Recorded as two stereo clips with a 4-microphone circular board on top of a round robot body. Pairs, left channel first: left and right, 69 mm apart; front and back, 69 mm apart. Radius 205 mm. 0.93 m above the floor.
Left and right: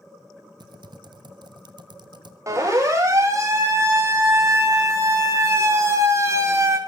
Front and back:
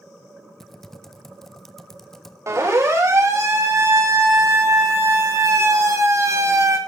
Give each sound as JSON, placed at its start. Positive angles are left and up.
{"t": 0.6, "sound": "typing on a keyboard", "azimuth_deg": -85, "distance_m": 1.5}
{"t": 2.5, "sound": "a siren", "azimuth_deg": -135, "distance_m": 6.5}